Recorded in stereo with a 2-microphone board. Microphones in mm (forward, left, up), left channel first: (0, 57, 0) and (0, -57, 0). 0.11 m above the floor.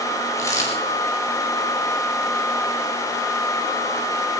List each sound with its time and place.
0.4 s a dropped coin: 25° left (ahead or behind), 7 m